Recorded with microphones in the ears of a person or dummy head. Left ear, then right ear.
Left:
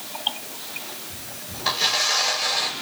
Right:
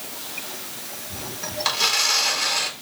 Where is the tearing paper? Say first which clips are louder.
Even; 50° right (ahead or behind), 3.5 m.